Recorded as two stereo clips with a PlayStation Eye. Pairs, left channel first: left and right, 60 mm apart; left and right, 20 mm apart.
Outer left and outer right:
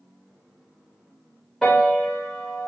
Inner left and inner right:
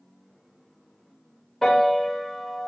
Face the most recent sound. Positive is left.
turn(degrees=10)  # may be behind; listen again after turning